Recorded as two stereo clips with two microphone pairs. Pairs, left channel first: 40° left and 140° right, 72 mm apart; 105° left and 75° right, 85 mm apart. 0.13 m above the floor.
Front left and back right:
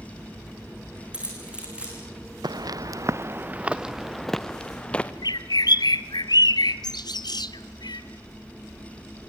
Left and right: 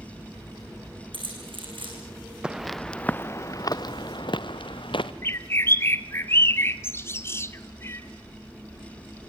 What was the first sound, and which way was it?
Keys jangling, 65° right.